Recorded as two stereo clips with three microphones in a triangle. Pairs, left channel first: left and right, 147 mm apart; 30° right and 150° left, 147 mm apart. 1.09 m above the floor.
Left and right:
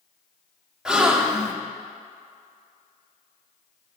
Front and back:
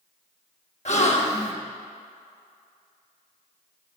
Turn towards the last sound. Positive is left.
turn(degrees=-5)